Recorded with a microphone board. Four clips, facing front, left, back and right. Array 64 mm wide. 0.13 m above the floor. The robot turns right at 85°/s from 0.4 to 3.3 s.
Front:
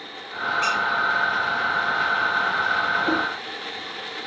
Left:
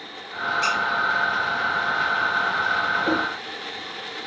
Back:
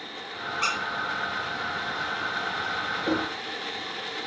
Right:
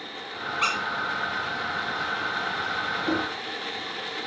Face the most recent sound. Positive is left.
turn(degrees=135)